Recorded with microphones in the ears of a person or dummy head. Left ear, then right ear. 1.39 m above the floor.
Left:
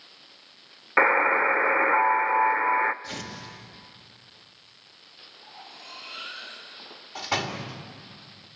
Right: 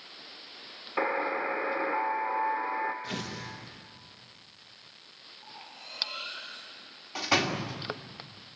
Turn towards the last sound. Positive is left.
turn(degrees=-30)  # may be behind; listen again after turning